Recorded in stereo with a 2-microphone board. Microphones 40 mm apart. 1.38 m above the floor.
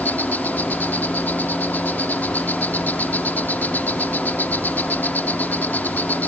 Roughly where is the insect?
Left.